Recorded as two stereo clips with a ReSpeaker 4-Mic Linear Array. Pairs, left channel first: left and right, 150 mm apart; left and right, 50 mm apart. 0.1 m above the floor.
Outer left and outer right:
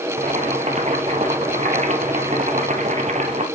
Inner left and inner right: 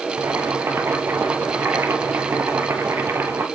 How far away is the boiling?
About 1.5 m.